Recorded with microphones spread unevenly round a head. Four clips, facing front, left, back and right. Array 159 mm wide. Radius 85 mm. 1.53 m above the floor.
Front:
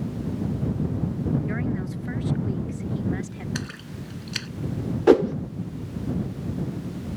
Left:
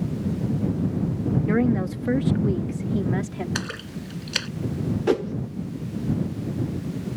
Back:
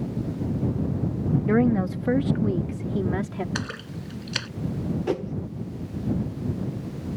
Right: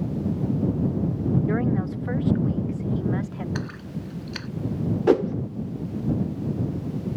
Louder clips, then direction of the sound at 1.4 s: Left 3 dB, back 8 dB; 145° left.